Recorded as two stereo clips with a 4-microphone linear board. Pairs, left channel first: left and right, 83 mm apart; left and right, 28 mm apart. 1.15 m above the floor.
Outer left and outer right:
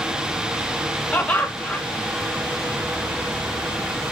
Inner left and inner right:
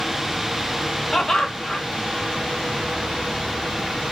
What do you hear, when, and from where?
1.1 s laughter: 20° left (ahead or behind), 0.9 m